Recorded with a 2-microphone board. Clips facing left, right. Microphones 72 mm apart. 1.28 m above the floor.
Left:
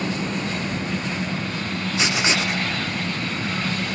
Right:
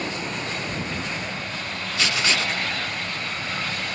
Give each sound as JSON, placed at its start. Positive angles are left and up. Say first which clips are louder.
{"t": 0.0, "sound": "an engine running", "louder": "left 4 dB", "side_deg": 75}
{"t": 2.0, "sound": "writing", "louder": "left 1 dB", "side_deg": 15}